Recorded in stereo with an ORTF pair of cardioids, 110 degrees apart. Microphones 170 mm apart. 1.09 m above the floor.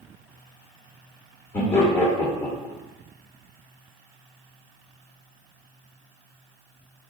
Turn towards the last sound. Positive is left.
turn(degrees=15)